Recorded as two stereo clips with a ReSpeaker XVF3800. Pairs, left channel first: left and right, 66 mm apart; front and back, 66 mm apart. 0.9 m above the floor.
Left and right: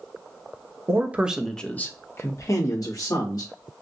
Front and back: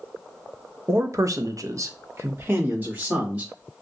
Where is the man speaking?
130° right, 0.6 m; by 3.5 s 115° left, 1.6 m.